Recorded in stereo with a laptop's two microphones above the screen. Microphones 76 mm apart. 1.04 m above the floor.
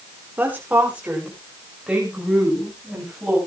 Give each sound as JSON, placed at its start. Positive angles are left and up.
{"t": 0.4, "sound": "a woman speaking", "side_deg": -25, "distance_m": 3.0}